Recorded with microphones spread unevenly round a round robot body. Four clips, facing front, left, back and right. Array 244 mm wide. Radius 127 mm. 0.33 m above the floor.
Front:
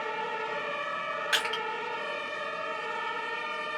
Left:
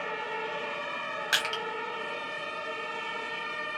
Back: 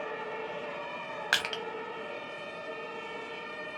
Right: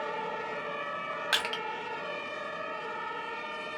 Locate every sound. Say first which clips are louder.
1.3 s crushing: left 3 dB, back 1 dB; 165° right, 0.7 m